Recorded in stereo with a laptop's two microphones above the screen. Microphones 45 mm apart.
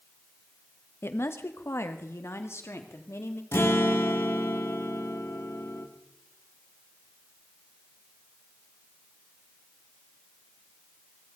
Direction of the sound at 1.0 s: 65° left (ahead or behind).